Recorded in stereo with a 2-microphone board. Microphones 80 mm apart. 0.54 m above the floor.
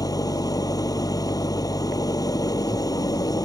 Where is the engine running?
50° left (ahead or behind).